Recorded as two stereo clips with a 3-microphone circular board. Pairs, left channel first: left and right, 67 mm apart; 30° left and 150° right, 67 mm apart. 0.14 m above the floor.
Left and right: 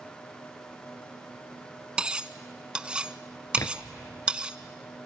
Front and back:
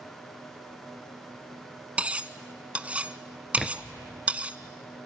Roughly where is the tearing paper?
Behind left.